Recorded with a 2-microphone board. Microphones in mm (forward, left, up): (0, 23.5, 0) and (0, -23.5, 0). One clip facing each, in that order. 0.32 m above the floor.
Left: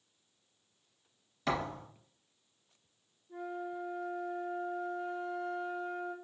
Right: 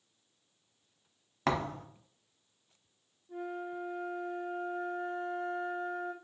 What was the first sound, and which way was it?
A thud, 65° right (ahead or behind).